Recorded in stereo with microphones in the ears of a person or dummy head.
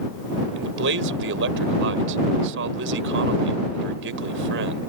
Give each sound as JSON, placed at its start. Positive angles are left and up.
{"t": 0.6, "sound": "a man speaking", "side_deg": -60}